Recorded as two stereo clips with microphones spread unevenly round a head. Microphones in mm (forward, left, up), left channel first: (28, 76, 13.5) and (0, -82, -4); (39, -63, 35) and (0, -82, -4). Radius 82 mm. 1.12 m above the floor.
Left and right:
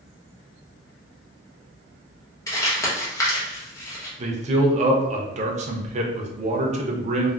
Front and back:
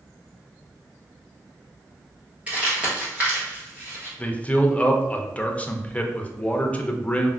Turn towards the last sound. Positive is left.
turn(degrees=-65)